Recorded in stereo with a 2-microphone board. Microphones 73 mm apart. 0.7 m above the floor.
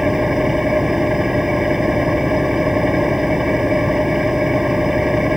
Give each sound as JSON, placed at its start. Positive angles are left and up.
{"t": 0.0, "sound": "an engine running", "side_deg": -5}